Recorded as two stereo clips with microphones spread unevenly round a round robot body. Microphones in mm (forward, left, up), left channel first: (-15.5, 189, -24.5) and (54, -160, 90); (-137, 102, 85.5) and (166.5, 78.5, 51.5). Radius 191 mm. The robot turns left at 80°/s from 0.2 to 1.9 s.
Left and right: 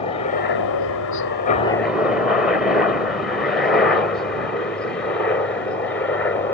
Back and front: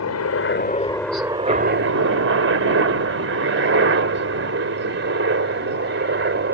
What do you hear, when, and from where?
0.0 s a helicopter: 155° left; by 6.5 s 35° left